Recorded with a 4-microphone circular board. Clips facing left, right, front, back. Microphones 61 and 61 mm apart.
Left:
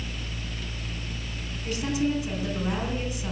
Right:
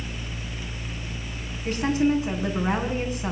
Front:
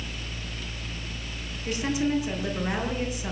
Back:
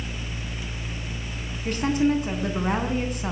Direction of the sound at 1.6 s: 140° right.